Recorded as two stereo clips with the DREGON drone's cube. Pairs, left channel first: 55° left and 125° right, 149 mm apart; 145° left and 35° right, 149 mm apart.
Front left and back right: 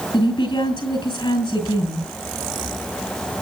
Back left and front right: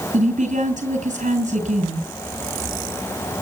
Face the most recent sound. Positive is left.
turn(degrees=0)